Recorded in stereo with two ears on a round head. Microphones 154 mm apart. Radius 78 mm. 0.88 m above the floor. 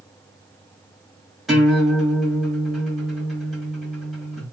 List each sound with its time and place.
1.5 s a guitar: centre (ahead or behind), 1.5 m